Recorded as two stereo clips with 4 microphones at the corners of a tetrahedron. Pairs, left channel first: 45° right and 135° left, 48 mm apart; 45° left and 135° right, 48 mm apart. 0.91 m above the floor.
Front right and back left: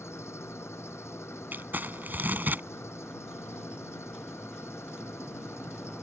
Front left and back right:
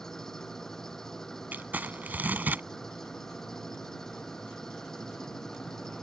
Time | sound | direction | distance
0.0 | an engine running | 35° right | ?
1.5 | crumpling | straight behind | ?